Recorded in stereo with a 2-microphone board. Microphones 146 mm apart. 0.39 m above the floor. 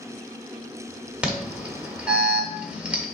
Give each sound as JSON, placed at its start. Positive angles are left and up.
{"t": 1.2, "sound": "an alarm", "side_deg": -10, "distance_m": 1.0}